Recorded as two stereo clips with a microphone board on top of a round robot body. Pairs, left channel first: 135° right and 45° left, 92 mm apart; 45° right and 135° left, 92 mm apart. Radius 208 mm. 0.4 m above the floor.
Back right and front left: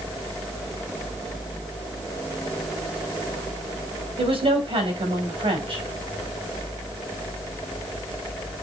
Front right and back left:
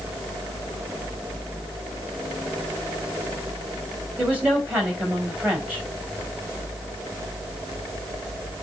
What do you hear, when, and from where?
4.2 s a woman speaking: 60° left, 4 m